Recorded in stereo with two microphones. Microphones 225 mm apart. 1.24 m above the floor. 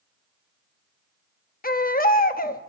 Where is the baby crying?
40° left (ahead or behind), 0.7 m.